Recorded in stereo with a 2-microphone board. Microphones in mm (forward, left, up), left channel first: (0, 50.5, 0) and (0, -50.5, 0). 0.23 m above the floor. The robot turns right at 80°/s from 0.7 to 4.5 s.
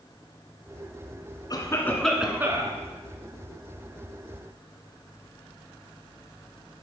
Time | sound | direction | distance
1.5 | a cough | 130° left | 2 m